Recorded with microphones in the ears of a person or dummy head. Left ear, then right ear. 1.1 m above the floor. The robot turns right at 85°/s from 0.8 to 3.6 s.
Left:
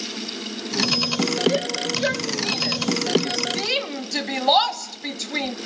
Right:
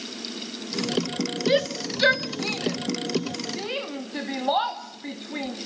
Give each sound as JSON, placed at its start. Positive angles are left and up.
{"t": 1.5, "sound": "a shout", "side_deg": -70, "distance_m": 2.5}